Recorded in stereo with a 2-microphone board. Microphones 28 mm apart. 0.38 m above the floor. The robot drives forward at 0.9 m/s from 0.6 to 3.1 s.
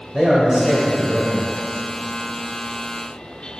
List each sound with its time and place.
0.1 s a man speaking: 25° right (ahead or behind), 1.6 m; by 1.4 s 30° right (ahead or behind), 1.3 m